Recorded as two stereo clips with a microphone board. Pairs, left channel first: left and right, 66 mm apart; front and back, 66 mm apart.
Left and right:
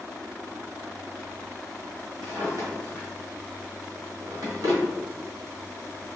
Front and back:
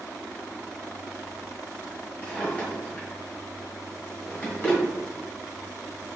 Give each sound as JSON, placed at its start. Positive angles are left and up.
{"t": 2.2, "sound": "a drawer", "azimuth_deg": -65, "distance_m": 1.5}